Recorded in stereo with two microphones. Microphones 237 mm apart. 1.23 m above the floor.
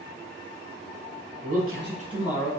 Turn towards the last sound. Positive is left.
turn(degrees=5)  # may be behind; listen again after turning